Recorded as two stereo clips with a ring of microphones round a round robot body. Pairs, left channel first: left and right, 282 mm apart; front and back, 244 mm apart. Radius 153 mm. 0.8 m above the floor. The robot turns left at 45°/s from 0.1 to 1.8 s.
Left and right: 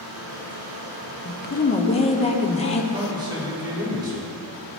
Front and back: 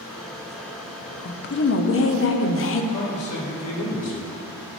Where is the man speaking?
15° right, 2.0 m.